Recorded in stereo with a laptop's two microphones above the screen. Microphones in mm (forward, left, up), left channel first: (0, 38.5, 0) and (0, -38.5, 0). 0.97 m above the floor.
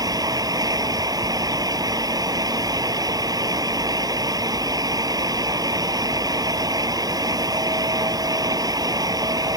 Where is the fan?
50° right (ahead or behind).